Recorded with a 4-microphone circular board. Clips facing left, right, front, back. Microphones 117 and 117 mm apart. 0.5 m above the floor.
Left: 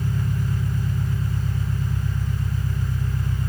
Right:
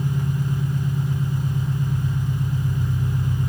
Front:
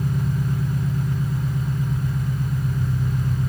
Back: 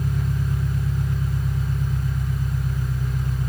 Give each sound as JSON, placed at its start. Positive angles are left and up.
{"t": 0.0, "sound": "an engine running", "azimuth_deg": -30, "distance_m": 1.6}